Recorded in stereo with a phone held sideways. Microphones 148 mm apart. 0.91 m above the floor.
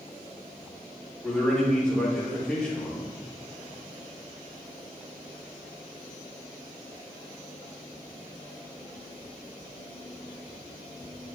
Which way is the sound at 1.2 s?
5° left (ahead or behind).